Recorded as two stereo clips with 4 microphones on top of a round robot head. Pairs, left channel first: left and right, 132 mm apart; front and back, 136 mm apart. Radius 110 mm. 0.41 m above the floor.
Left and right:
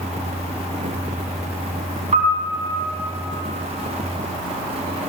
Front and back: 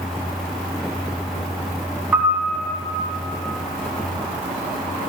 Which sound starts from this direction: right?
A piano, at 2.1 s.